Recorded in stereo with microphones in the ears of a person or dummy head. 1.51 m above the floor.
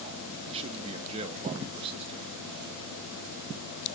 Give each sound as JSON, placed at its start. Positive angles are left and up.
{"t": 0.5, "sound": "a man speaking", "side_deg": -30, "distance_m": 1.3}